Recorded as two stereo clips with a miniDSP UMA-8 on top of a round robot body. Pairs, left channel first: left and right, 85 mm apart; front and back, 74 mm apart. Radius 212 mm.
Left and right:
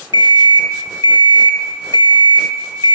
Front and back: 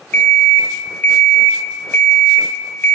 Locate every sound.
0.1 s an alarm clock: 65° left, 0.6 m